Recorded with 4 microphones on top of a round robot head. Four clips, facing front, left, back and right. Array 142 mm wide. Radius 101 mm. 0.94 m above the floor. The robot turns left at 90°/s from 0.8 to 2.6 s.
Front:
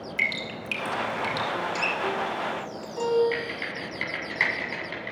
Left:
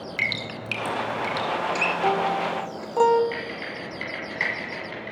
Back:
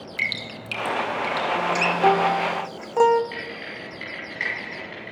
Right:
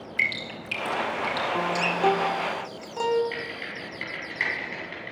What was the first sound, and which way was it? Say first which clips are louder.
Dripping: right 1 dB, even; 100° left.